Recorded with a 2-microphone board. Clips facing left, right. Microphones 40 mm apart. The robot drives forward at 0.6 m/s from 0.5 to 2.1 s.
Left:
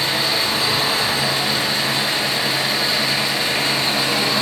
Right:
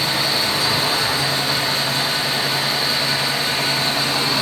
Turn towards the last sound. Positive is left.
turn(degrees=75)  # may be behind; listen again after turning